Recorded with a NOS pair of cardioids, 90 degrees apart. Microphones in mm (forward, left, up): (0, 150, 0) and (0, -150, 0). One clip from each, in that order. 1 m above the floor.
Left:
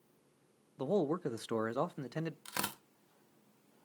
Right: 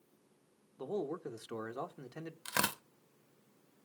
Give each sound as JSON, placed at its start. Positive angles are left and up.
{"t": 0.8, "sound": "a man speaking", "azimuth_deg": 35, "distance_m": 0.7}
{"t": 2.5, "sound": "tearing paper", "azimuth_deg": -20, "distance_m": 0.5}